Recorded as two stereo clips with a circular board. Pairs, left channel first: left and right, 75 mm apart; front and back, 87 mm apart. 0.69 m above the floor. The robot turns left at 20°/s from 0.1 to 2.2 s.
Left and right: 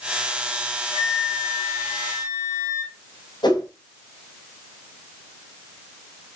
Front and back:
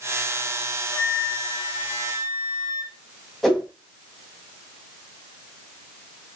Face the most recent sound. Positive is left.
turn(degrees=85)